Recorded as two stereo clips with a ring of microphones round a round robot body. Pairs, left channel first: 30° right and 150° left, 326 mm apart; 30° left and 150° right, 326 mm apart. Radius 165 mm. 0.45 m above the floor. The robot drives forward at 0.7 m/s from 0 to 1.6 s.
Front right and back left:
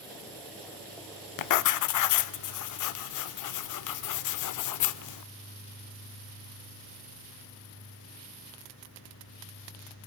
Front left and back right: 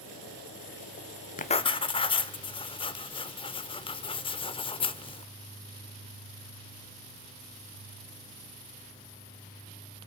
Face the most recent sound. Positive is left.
turn(degrees=-40)